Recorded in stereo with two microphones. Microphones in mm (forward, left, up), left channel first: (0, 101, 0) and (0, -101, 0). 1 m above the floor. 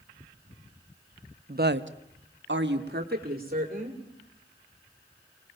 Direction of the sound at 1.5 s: 45° right (ahead or behind).